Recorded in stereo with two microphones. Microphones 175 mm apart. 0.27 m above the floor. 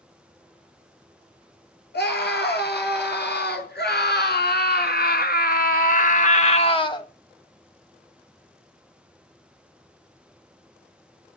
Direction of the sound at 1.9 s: 70° left (ahead or behind).